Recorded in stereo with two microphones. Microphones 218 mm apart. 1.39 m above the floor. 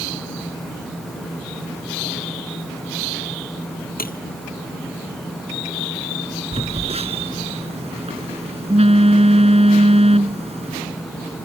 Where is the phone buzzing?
30° right (ahead or behind).